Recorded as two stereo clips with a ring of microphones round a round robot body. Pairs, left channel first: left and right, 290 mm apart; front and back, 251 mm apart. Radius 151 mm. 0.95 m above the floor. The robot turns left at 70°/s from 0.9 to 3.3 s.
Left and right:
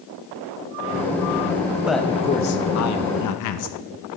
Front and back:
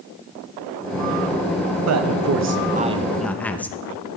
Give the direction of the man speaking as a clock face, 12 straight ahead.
6 o'clock.